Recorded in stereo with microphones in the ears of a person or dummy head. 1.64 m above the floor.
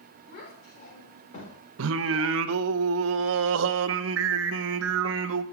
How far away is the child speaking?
About 4 m.